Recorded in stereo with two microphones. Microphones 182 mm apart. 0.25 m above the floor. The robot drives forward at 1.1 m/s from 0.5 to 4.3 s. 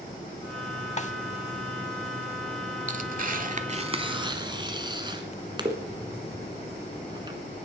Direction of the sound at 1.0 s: 40° left (ahead or behind).